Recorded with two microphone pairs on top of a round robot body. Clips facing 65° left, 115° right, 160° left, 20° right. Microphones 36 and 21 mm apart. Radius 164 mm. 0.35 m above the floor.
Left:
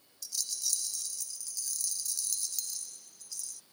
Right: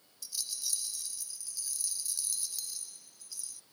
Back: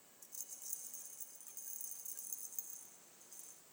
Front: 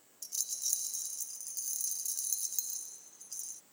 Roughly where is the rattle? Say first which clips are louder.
Left 2 dB, front 16 dB; ahead right.